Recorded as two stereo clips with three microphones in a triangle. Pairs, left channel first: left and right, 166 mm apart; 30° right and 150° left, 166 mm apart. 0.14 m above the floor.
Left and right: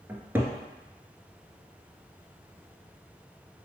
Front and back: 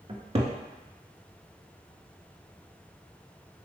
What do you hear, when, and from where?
0.1 s a cupboard door: 165° right, 0.5 m